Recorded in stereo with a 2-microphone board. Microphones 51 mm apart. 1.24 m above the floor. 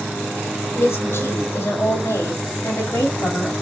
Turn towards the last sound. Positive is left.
turn(degrees=60)  # may be behind; listen again after turning